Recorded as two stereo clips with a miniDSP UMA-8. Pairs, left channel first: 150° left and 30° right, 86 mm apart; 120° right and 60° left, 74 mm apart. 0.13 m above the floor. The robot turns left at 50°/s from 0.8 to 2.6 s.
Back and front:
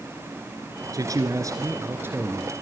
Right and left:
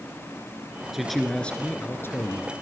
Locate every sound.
0.9 s a man speaking: 25° right, 1.9 m; by 2.5 s 105° right, 1.9 m